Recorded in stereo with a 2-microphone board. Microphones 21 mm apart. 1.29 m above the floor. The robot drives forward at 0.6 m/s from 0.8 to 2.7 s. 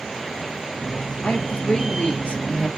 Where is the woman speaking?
65° left (ahead or behind), 1.9 m; by 2.7 s 85° left, 1.7 m.